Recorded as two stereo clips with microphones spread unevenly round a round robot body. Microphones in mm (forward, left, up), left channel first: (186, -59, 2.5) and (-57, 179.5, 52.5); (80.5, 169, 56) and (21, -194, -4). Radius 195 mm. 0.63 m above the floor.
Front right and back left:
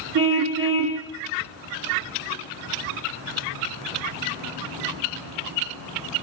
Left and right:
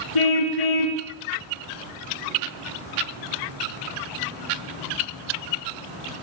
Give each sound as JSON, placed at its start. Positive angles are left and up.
{"t": 0.1, "sound": "a car horn", "azimuth_deg": 105, "distance_m": 5.5}